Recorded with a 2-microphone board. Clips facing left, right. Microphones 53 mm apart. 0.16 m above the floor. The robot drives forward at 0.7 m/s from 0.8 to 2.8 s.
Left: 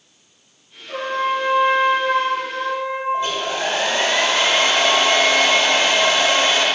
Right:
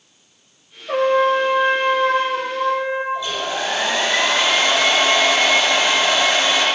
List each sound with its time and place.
0.9 s a trumpet: 55° right (ahead or behind), 1.4 m; by 3.0 s 30° right (ahead or behind), 2.5 m
3.1 s a hair dryer: 45° left (ahead or behind), 4 m